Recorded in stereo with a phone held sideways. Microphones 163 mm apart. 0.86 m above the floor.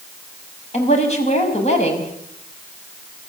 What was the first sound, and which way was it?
A woman speaking, 45° left (ahead or behind).